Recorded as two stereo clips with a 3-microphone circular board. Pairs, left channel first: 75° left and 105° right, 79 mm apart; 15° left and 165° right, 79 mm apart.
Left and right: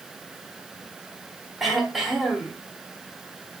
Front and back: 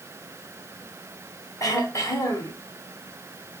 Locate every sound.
1.6 s throat clearing: 15° right, 1.5 m